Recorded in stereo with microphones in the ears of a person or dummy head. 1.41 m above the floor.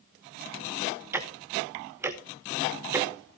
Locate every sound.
1.1 s ticking: 10° right (ahead or behind), 1.2 m